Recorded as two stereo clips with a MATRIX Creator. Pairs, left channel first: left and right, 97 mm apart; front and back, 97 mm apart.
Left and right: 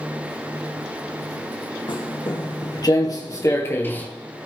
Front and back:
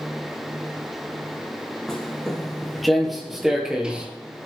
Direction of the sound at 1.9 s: 85° left.